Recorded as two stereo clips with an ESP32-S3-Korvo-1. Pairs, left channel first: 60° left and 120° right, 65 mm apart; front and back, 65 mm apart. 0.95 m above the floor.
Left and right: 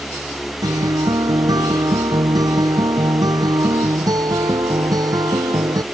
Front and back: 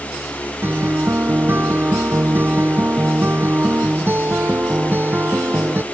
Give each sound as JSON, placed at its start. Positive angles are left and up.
{"t": 0.6, "sound": "a guitar", "azimuth_deg": -125}